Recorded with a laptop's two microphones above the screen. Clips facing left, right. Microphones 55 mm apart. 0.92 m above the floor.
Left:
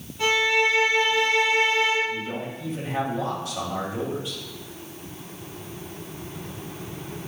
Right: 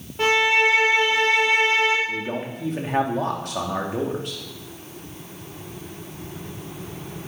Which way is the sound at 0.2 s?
70° right (ahead or behind).